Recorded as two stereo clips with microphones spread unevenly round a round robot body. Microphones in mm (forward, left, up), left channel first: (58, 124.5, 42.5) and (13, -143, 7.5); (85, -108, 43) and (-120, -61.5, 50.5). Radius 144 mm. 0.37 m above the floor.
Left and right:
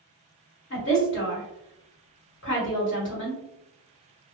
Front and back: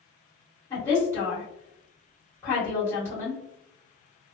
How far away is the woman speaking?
About 1.5 m.